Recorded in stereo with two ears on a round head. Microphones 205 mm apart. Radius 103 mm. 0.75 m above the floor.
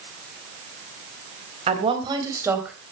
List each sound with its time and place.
1.7 s a woman speaking: 30° right (ahead or behind), 4 m; by 2.8 s 5° right (ahead or behind), 3.5 m